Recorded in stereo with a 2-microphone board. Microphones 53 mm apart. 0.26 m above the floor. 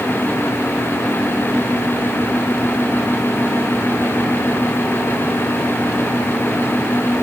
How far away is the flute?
I don't hear a flute.